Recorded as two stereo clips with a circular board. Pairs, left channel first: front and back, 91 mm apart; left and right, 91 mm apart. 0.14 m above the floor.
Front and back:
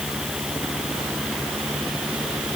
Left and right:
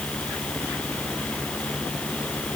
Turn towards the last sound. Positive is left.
No sound to turn to.